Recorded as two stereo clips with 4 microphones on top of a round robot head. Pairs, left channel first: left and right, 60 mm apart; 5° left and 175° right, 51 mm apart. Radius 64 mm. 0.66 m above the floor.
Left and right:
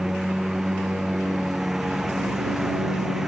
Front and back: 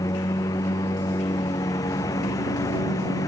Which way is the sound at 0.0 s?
5° right.